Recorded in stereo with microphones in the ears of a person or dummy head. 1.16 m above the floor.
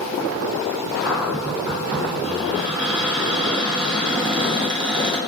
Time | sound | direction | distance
1.0 | a cupboard door | 25° right (ahead or behind) | 0.5 m